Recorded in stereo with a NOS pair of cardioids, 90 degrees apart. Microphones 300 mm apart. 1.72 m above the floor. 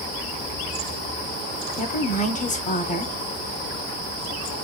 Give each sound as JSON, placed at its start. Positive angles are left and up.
{"t": 1.8, "sound": "a woman speaking", "azimuth_deg": 25, "distance_m": 0.7}